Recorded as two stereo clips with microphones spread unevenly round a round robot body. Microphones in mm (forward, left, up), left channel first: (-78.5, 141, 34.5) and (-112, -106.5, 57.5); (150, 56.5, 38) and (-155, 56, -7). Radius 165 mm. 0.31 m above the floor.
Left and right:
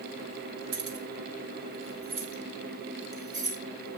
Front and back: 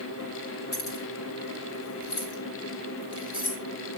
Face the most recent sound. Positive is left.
turn(degrees=-50)